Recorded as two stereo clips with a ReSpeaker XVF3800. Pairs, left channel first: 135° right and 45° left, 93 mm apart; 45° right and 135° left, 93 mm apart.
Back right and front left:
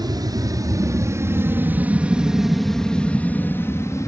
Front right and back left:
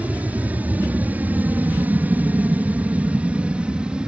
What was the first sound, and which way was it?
An aircraft, 65° left.